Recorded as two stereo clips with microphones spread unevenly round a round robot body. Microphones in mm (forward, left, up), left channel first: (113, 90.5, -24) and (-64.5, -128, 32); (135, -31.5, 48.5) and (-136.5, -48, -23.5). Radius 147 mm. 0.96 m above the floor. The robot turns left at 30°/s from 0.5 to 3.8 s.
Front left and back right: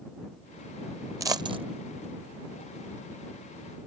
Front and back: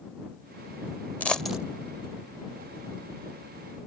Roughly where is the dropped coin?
Ahead right.